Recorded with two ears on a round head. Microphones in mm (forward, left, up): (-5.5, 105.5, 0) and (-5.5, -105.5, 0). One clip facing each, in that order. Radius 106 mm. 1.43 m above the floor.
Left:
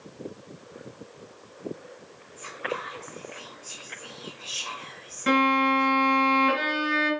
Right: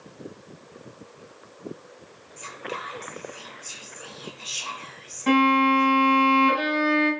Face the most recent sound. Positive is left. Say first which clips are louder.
# right 4 dB
turn(degrees=20)  # may be behind; listen again after turning